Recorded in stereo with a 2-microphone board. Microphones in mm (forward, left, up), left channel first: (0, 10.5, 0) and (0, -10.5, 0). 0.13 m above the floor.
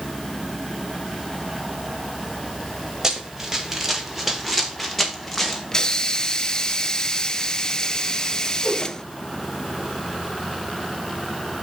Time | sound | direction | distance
3.0 | running footsteps | 30° right (ahead or behind) | 3.5 m
5.7 | a hiss | 30° left (ahead or behind) | 0.8 m
8.6 | a whoosh | 15° left (ahead or behind) | 7 m